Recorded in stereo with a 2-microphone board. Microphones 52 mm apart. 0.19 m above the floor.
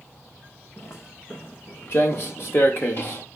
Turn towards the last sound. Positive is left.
turn(degrees=45)  # may be behind; listen again after turning